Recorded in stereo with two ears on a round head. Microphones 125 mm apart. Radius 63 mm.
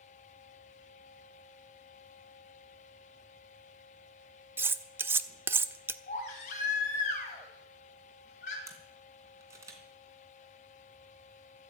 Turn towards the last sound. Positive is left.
turn(degrees=-20)  # may be behind; listen again after turning